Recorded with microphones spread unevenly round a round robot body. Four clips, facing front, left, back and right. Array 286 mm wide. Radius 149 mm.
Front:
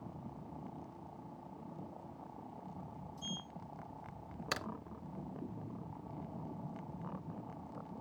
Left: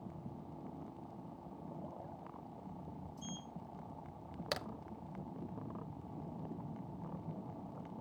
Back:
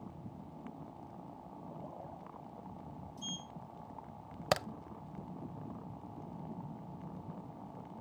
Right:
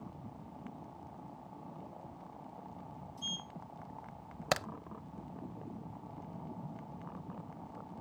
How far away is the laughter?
No laughter in this recording.